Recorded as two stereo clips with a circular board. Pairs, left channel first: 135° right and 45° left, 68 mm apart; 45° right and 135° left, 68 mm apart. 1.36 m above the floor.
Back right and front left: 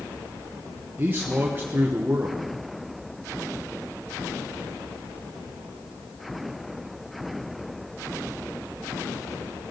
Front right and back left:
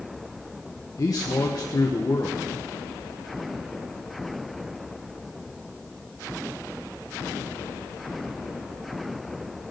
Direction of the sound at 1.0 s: 15° right.